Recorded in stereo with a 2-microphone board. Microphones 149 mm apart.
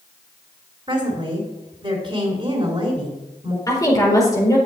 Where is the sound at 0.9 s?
35° right (ahead or behind), 2 m.